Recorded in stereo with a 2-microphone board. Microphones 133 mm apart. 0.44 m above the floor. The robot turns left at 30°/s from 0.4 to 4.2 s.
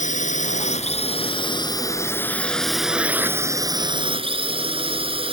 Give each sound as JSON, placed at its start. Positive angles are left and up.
{"t": 0.0, "sound": "a drone", "azimuth_deg": 70}